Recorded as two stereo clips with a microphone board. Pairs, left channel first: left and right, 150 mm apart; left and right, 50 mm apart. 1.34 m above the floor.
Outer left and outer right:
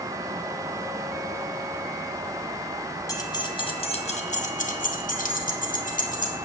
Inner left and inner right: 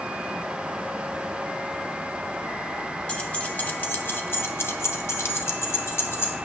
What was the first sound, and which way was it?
Keys jangling, 25° left (ahead or behind).